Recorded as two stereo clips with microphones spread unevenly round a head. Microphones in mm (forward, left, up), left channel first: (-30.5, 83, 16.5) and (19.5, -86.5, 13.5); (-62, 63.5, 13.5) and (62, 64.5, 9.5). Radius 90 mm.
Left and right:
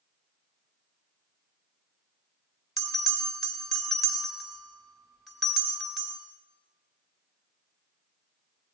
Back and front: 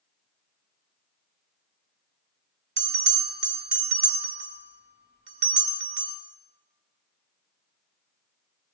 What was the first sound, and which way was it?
A bell, 15° left.